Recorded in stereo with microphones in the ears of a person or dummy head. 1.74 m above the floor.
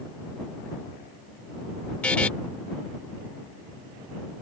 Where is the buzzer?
5° left (ahead or behind).